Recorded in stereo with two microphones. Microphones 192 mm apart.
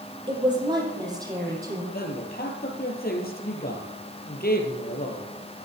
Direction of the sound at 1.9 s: 55° left (ahead or behind).